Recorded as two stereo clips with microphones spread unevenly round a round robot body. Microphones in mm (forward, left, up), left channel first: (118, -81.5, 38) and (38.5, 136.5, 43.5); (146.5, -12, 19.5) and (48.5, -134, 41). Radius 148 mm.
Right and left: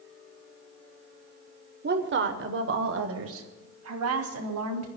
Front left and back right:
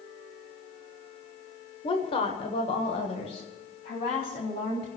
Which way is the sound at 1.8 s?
85° left.